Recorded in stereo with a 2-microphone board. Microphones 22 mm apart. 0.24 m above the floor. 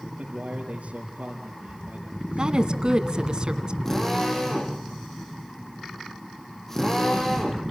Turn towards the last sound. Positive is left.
turn(degrees=15)  # may be behind; listen again after turning